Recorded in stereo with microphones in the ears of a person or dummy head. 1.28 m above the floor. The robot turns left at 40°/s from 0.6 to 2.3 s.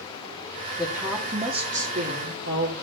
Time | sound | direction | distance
0.8 | a woman speaking | 5° right | 3 m